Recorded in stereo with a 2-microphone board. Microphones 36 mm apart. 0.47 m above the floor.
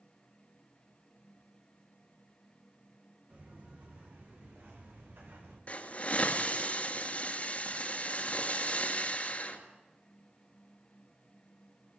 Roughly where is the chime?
No chime in this recording.